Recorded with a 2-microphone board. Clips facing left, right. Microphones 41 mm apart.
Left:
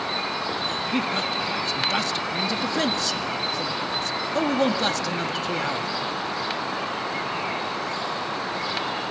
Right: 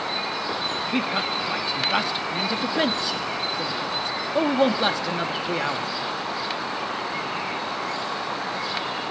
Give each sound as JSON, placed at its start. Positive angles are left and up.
{"t": 0.9, "sound": "a man speaking", "side_deg": -15, "distance_m": 1.0}